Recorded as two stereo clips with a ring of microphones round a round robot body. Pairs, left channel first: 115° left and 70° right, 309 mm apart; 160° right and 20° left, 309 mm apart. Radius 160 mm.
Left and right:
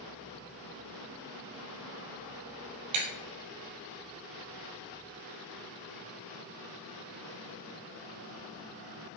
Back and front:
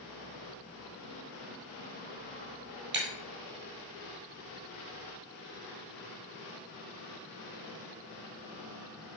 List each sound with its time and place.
2.9 s breaking glass: 35° right, 3.5 m